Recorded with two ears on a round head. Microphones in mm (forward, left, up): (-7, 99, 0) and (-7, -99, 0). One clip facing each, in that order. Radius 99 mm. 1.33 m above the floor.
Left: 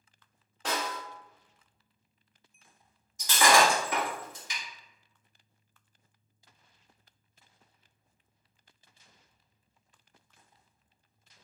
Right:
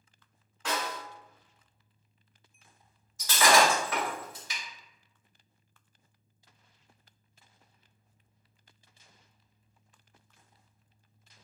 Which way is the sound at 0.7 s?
30° left (ahead or behind).